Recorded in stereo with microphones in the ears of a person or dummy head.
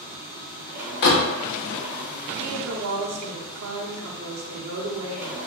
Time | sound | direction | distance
0.0 | a machine running | 65° right (ahead or behind) | 0.8 m
1.0 | a door slam | 55° left (ahead or behind) | 0.7 m
2.4 | a woman speaking | 80° right | 0.9 m